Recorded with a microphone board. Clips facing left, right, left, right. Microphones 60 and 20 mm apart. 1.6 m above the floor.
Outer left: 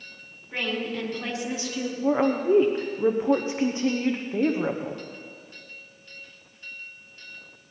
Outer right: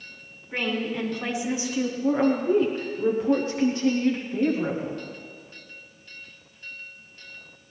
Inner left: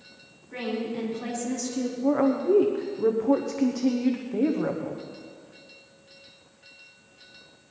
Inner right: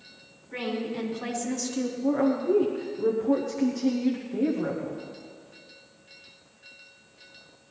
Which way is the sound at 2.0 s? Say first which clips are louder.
Outer left 1 dB, inner left 2 dB; 25° left (ahead or behind).